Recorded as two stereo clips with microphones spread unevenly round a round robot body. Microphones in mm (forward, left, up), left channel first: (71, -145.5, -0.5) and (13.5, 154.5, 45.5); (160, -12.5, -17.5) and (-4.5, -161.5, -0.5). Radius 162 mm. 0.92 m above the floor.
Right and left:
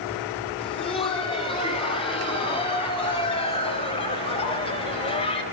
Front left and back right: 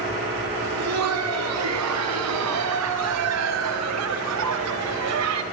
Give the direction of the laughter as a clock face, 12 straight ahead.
5 o'clock.